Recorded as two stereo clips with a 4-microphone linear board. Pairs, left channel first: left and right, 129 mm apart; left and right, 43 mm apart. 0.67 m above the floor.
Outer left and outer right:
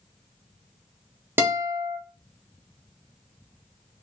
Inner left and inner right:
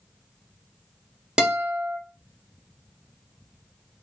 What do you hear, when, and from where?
1.4 s a guitar: 15° right (ahead or behind), 1.0 m